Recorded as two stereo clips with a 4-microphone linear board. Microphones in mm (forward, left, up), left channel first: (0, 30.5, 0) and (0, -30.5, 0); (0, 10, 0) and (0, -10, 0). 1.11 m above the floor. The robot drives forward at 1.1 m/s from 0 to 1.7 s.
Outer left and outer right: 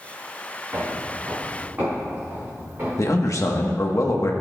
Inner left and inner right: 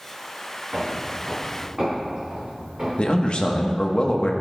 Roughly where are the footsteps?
Right.